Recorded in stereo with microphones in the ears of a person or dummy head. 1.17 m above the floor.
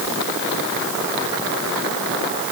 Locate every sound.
Only background noise.